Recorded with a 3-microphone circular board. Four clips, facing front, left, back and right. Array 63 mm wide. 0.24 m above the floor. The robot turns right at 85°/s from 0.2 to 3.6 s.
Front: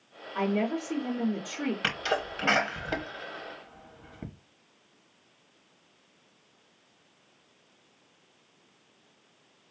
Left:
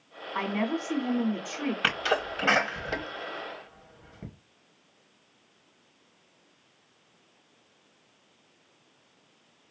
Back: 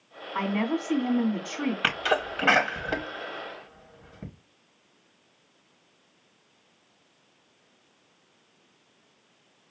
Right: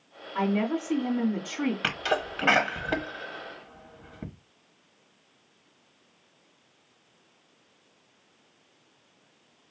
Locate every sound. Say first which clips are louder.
0.3 s a woman speaking: right 3 dB, back 1 dB; 140° left, 2 m; by 1.7 s 100° right, 2 m
1.8 s a sneeze: left 1 dB, back 6 dB; 160° left, 1.1 m; by 4.3 s 50° right, 1.1 m